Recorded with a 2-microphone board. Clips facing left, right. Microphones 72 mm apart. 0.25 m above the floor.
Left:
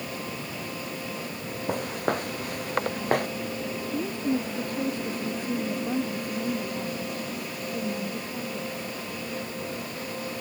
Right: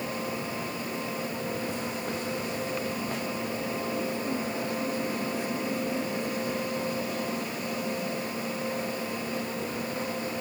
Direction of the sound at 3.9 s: 50° left (ahead or behind).